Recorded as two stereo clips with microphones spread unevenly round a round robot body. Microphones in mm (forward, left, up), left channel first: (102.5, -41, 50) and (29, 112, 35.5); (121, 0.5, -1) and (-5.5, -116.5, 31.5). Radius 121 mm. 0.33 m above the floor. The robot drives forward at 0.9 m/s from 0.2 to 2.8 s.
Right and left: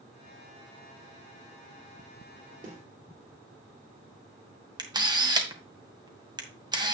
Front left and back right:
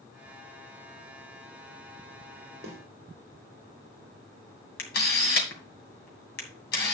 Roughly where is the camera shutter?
Ahead left.